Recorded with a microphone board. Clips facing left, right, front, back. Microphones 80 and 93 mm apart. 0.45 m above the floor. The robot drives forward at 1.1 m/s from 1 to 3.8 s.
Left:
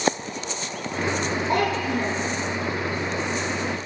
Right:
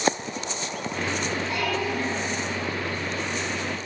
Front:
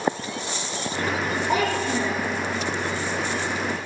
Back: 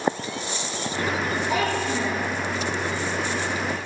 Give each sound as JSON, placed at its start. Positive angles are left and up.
{"t": 1.5, "sound": "a child speaking", "azimuth_deg": 50, "distance_m": 9.0}